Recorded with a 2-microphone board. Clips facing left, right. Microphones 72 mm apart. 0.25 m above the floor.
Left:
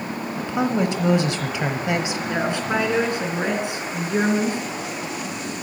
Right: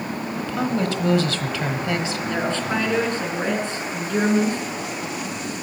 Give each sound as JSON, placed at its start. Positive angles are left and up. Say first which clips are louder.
{"t": 0.4, "sound": "a woman speaking", "louder": "left 2 dB", "side_deg": 20, "distance_m": 1.1}
{"t": 2.3, "sound": "a woman speaking", "louder": "left 1 dB", "side_deg": 15, "distance_m": 2.5}